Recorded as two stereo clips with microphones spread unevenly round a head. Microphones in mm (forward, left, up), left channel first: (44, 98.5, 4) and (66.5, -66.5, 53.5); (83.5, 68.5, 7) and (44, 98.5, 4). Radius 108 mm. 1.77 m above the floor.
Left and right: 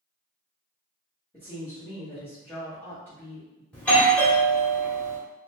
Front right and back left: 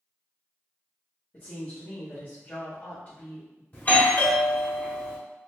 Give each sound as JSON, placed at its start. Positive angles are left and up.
{"t": 1.3, "sound": "a woman speaking", "azimuth_deg": 15, "distance_m": 1.4}
{"t": 3.7, "sound": "a doorbell", "azimuth_deg": 10, "distance_m": 1.5}